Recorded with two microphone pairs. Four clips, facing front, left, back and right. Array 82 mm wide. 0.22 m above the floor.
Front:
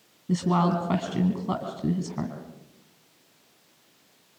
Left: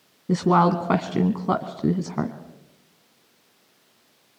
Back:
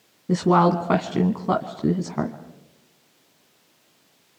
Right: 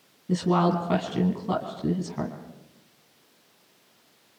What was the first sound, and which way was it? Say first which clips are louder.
A woman speaking: left 4 dB, back 6 dB; 125° left.